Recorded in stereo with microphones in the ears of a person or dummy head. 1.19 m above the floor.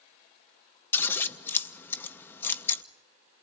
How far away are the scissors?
About 0.8 m.